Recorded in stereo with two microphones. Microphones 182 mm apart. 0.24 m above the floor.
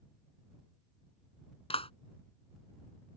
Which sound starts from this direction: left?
A clap, at 1.7 s.